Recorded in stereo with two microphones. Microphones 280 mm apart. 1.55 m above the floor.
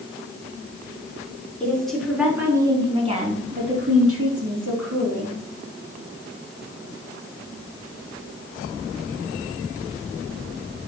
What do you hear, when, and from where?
1.6 s a woman speaking: 5° left (ahead or behind), 4.5 m; by 5.3 s 80° right, 4 m